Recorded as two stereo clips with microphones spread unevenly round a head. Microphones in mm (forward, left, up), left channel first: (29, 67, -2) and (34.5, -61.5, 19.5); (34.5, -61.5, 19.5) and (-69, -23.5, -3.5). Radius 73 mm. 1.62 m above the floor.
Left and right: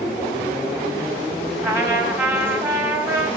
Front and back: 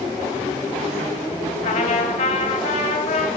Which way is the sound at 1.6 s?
25° right.